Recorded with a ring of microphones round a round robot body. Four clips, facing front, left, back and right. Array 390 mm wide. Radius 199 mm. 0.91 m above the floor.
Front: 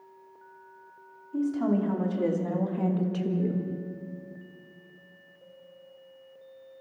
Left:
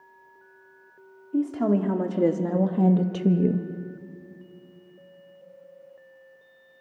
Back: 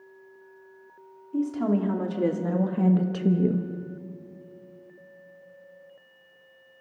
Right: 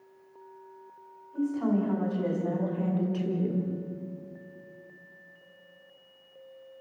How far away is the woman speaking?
About 3 m.